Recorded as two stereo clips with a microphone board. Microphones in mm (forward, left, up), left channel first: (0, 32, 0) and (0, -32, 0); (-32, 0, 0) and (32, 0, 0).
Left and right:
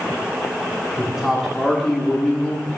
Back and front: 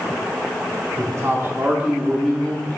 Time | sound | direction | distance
1.0 | a man speaking | 10° right | 1.1 m